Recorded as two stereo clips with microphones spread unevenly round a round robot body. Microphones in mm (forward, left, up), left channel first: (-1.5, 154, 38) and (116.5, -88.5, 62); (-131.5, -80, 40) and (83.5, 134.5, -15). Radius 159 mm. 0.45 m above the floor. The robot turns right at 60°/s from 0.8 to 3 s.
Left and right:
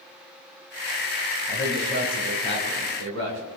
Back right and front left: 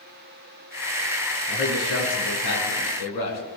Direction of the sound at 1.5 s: 155° left.